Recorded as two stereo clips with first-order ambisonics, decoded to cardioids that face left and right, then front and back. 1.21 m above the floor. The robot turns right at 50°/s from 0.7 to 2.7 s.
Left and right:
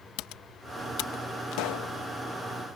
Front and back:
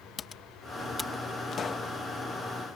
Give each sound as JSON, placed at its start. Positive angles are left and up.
{"t": 0.2, "sound": "typing on a keyboard", "azimuth_deg": 70}
{"t": 1.5, "sound": "a pop", "azimuth_deg": 60}